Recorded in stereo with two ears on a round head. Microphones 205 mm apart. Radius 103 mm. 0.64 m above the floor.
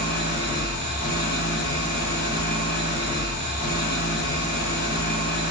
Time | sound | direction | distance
0.0 | an engine running | 70° left (ahead or behind) | 1.1 m